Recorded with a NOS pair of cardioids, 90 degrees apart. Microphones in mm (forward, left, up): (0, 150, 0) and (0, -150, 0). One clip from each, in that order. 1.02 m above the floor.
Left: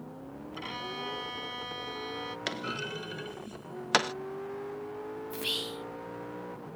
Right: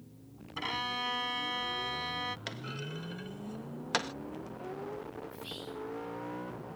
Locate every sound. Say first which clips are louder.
0.6 s a violin: right 4 dB; 25° right
2.5 s a clunk: left 7 dB; 30° left
5.3 s whispering: left 9 dB; 65° left